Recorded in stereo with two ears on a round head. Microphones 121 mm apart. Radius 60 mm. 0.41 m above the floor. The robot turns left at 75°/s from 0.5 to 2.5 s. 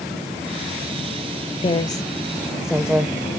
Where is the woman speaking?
45° left (ahead or behind), 1.2 m; by 3.2 s 5° right (ahead or behind), 1.2 m.